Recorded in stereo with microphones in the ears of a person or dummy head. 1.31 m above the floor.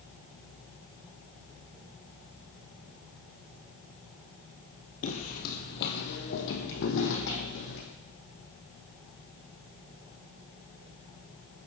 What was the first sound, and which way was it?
Footsteps, 45° left (ahead or behind).